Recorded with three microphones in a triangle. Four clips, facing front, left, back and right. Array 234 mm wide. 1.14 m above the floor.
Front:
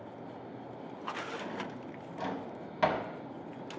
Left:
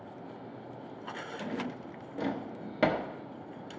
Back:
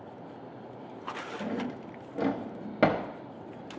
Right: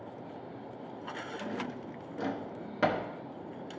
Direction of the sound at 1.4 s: 165° left.